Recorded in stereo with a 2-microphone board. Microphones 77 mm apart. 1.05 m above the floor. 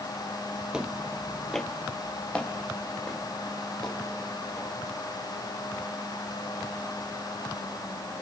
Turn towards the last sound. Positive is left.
turn(degrees=15)  # may be behind; listen again after turning